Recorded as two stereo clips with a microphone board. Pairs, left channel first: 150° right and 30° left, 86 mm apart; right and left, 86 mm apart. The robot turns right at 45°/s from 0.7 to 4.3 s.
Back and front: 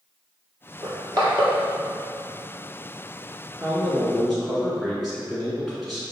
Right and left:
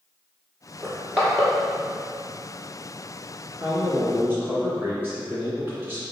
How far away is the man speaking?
About 1.8 m.